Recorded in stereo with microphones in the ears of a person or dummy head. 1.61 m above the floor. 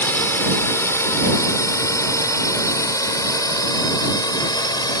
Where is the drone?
15° left (ahead or behind); by 5.0 s 25° left (ahead or behind).